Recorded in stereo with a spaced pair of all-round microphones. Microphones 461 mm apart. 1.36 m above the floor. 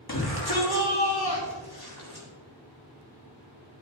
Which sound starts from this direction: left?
A shout, at 0.1 s.